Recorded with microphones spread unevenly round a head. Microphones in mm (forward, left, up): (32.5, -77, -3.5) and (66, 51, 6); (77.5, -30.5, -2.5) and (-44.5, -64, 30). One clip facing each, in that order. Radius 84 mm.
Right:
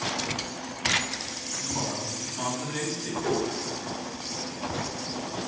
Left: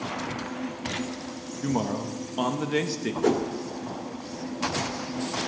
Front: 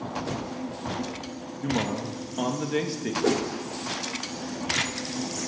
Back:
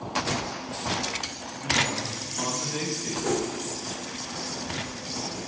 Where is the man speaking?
55° left, 1.7 m.